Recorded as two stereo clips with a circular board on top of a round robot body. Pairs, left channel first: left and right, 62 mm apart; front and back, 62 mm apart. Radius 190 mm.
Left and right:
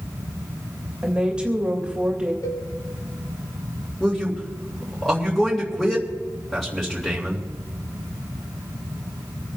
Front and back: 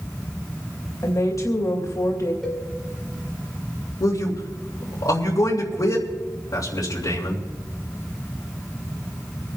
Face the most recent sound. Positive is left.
turn(degrees=5)